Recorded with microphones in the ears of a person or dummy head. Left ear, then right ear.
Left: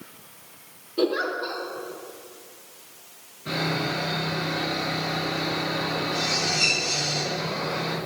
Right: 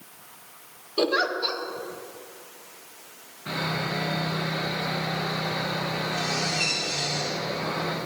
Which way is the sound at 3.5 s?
15° right (ahead or behind).